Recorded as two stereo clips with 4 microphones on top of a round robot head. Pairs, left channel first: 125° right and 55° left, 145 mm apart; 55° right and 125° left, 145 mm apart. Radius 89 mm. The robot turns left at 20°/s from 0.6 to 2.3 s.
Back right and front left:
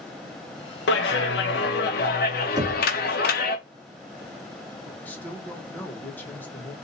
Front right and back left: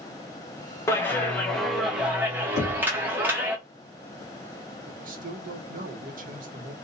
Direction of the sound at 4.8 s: 155° left.